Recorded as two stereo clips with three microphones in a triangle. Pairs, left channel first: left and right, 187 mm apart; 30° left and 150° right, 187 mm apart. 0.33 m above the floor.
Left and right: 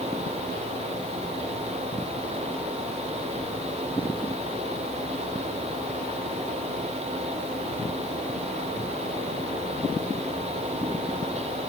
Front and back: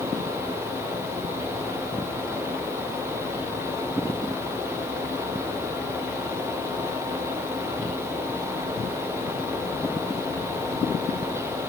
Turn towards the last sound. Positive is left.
No sound to turn to.